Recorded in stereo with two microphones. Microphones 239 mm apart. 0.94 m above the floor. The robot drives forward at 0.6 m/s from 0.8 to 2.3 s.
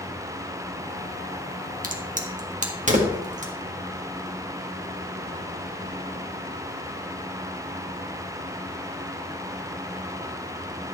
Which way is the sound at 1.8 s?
35° right (ahead or behind).